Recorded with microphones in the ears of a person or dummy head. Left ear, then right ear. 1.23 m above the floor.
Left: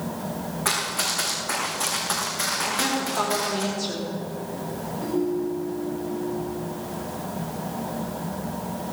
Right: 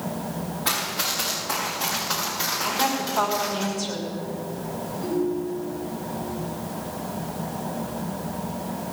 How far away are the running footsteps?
About 5 m.